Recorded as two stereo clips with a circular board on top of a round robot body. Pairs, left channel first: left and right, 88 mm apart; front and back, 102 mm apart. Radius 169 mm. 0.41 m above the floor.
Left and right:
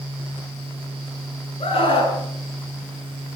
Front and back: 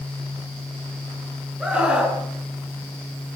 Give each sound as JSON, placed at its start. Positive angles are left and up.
{"t": 1.6, "sound": "a scream", "azimuth_deg": 100, "distance_m": 6.0}